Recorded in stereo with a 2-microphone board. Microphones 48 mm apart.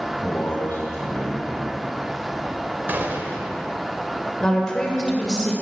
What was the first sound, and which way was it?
A man speaking, 40° left (ahead or behind).